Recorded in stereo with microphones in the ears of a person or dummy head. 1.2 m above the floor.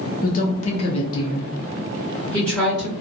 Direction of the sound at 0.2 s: 40° left (ahead or behind).